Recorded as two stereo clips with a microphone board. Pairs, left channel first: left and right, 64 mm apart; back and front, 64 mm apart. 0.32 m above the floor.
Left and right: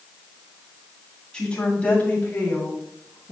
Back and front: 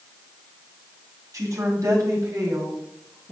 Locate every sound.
1.3 s a woman speaking: 15° left, 2.5 m; by 3.3 s 40° left, 3.5 m